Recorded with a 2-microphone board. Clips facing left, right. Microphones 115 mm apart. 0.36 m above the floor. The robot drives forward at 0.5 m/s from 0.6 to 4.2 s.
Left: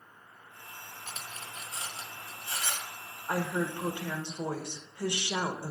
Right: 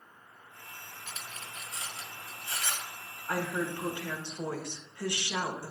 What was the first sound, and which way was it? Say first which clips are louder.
Cutlery clinking: left 1 dB; 35° left (ahead or behind).